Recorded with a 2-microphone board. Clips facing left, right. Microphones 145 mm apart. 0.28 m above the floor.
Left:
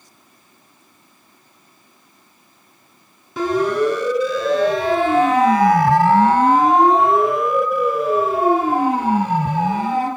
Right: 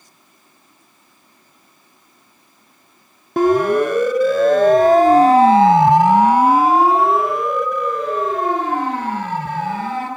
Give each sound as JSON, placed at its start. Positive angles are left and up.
{"t": 3.4, "sound": "a siren", "side_deg": -55, "distance_m": 3.0}